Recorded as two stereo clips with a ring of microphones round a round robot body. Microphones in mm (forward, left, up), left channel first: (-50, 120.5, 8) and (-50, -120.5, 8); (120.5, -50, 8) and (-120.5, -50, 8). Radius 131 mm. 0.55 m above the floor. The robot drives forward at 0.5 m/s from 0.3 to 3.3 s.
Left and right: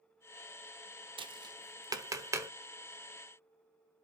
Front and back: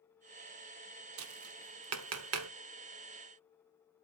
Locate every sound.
1.2 s tapping: 160° right, 0.9 m; by 2.5 s 170° right, 1.5 m